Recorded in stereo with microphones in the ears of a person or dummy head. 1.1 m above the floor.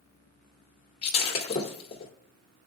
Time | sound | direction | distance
1.0 | breaking glass | 30° left (ahead or behind) | 1.8 m